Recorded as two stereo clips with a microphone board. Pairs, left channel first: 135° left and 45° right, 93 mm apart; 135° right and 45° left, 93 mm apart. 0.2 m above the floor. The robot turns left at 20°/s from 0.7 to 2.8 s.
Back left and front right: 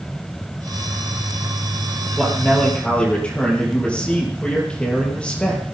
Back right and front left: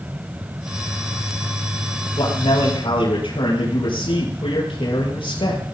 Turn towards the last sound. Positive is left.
turn(degrees=-150)